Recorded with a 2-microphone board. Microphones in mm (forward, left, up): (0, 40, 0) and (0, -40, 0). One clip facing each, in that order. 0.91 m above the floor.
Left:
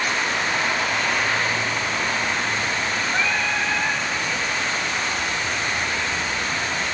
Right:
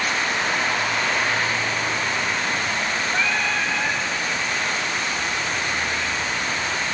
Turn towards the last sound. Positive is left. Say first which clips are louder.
# even
turn(degrees=20)  # may be behind; listen again after turning